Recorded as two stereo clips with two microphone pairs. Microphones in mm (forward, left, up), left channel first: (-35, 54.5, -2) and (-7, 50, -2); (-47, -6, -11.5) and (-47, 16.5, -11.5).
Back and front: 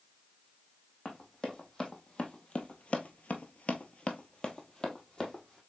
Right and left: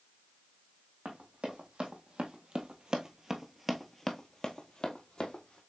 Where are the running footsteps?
110° left, 1.5 m; by 5.6 s 120° right, 1.2 m.